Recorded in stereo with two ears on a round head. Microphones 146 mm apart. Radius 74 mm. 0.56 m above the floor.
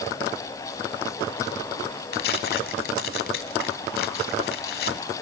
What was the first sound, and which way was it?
Tearing paper, 60° left (ahead or behind).